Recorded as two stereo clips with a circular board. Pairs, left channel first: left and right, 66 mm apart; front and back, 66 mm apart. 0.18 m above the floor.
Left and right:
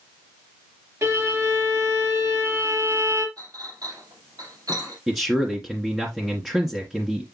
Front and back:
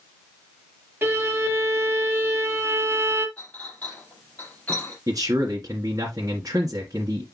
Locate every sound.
1.0 s a violin: 130° right, 4 m
3.4 s a clink: 65° right, 5 m
5.1 s a man speaking: 170° right, 2.0 m